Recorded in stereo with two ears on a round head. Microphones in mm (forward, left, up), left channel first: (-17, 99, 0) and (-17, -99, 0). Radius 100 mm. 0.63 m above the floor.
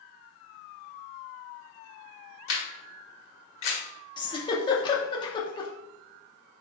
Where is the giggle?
20° left (ahead or behind), 0.6 m.